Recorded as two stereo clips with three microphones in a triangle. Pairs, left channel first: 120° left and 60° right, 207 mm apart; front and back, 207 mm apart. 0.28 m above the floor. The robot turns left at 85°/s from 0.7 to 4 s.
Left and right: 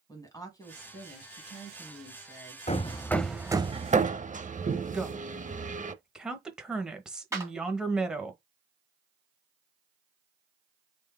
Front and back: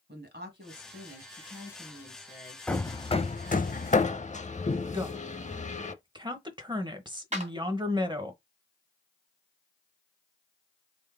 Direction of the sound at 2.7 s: 80° left.